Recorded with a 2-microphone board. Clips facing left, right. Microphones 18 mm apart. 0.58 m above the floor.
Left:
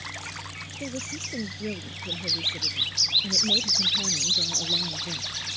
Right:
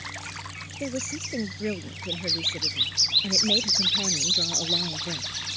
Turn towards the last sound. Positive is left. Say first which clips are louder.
# right 3 dB
turn(degrees=-35)  # may be behind; listen again after turning